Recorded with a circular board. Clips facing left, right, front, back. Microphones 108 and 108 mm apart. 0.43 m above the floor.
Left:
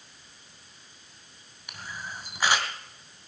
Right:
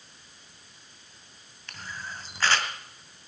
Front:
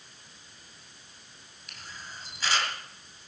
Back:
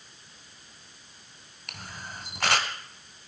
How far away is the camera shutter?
About 2.0 m.